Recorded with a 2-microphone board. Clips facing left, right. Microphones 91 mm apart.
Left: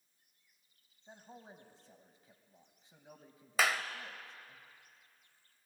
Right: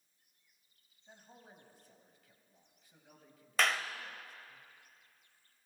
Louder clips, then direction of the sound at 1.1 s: Left 4 dB; 30° left (ahead or behind).